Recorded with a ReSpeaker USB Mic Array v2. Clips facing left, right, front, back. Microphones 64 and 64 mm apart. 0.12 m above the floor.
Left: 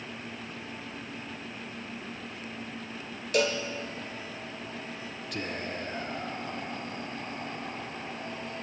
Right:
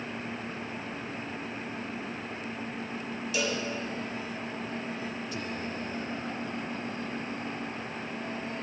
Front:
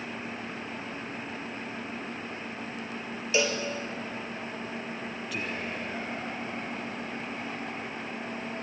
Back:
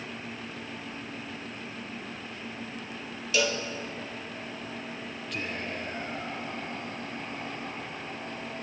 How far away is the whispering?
About 2 m.